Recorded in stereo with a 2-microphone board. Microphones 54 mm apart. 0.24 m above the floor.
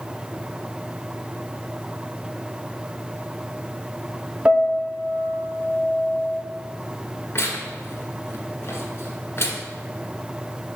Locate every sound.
4.5 s a piano: 25° right (ahead or behind), 1.1 m
7.3 s tearing paper: 50° left (ahead or behind), 1.6 m